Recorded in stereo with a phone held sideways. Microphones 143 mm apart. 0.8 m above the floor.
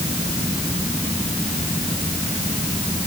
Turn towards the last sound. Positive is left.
No sound to turn to.